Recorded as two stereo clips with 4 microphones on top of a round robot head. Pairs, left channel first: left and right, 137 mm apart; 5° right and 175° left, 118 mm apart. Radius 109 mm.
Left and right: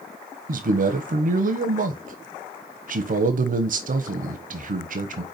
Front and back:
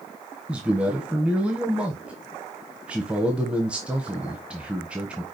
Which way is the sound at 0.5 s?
105° right.